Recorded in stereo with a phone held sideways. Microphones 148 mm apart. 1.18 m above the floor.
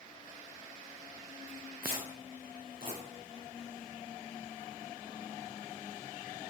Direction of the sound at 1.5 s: 90° right.